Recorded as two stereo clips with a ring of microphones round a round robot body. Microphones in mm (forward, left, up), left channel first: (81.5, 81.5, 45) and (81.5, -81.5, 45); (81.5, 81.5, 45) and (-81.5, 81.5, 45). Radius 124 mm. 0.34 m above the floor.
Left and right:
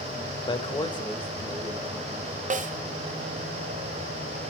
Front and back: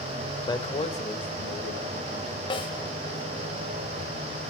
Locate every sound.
0.5 s a man speaking: 50° left, 1.5 m; by 2.4 s 25° left, 4 m
2.5 s a snare drum: 60° right, 1.2 m